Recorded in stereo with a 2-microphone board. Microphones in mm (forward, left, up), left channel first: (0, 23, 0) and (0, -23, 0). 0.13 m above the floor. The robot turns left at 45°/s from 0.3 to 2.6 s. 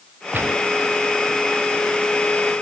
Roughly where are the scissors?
No scissors in this recording.